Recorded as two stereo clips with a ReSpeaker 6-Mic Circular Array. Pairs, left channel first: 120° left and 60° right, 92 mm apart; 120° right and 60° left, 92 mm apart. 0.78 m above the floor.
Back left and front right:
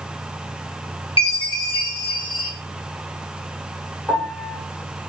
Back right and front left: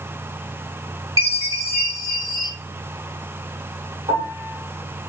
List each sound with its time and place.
1.2 s a chime: 110° left, 1.0 m
4.1 s a piano: 50° left, 1.3 m